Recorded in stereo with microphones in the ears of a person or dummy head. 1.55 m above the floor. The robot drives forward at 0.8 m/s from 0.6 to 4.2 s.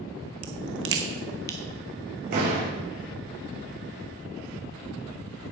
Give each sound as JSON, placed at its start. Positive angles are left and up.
{"t": 0.4, "sound": "a crack", "side_deg": -35, "distance_m": 0.9}
{"t": 2.3, "sound": "a door slam", "side_deg": -50, "distance_m": 5.5}